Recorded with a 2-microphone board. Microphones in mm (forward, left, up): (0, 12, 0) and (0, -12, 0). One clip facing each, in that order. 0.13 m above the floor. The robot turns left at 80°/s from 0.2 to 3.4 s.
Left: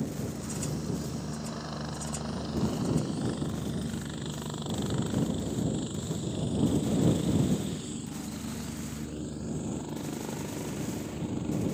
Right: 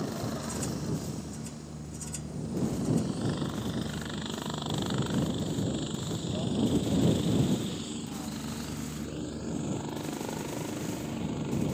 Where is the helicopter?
50° right (ahead or behind); by 11.7 s 15° right (ahead or behind).